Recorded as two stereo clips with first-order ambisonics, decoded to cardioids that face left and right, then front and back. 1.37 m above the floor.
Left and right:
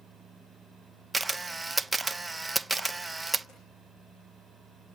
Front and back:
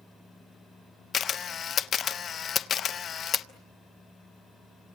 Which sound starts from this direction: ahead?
A camera shutter, at 1.1 s.